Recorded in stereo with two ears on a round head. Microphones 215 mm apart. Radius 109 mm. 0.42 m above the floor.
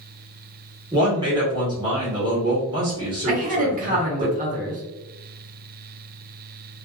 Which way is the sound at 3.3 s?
35° right (ahead or behind).